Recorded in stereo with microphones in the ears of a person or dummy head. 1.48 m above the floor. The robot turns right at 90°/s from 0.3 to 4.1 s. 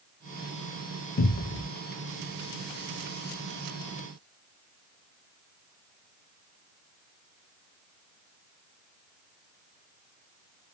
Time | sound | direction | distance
1.2 | a cupboard door | 80° left | 0.6 m